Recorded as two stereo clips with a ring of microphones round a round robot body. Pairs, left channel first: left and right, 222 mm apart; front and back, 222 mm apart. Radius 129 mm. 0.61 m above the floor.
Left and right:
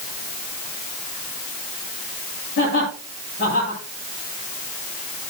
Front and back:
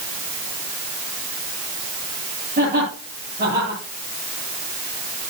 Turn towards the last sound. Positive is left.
turn(degrees=130)